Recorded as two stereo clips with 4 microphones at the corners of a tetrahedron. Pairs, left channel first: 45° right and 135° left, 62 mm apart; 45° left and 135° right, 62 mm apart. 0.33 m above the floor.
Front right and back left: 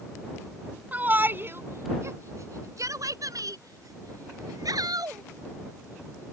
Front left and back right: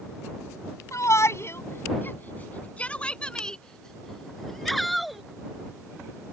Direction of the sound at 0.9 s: 75° left.